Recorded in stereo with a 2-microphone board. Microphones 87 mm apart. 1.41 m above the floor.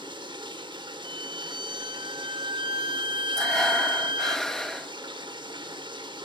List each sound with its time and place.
0.0 s running water: 65° right (ahead or behind), 3 m
1.0 s a violin: 75° right (ahead or behind), 2.5 m
3.4 s breathing: 5° left (ahead or behind), 2.5 m